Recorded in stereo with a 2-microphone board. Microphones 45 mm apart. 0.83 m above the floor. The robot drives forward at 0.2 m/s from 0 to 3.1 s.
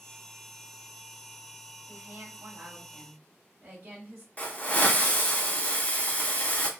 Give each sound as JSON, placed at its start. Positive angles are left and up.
{"t": 1.9, "sound": "a woman speaking", "side_deg": -60, "distance_m": 1.7}
{"t": 4.4, "sound": "a hiss", "side_deg": 35, "distance_m": 0.7}